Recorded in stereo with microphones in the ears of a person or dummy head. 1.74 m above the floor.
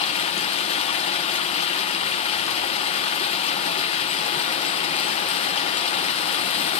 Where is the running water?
35° left (ahead or behind), 1.0 m.